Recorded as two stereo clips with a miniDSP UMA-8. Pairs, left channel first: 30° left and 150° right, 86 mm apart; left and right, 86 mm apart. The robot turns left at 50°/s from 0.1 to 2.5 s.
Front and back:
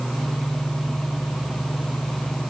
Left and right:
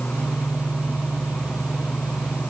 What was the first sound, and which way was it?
Only background noise.